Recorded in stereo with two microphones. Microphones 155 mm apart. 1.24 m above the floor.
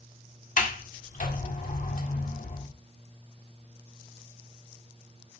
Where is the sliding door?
60° left (ahead or behind), 1.7 m.